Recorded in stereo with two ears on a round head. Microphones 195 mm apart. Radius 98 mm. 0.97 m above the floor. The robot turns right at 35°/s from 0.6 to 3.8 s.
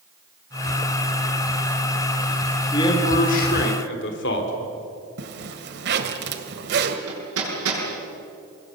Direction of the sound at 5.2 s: 50° right (ahead or behind).